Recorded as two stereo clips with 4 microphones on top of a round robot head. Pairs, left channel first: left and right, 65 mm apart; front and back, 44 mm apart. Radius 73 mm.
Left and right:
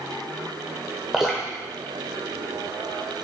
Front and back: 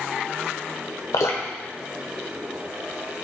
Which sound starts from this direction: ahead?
Dripping, at 1.1 s.